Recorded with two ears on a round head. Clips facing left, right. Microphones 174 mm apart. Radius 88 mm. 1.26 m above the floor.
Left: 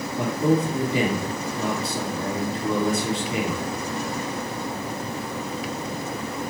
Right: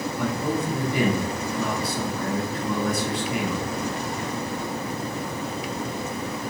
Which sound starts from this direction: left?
A man speaking, at 0.2 s.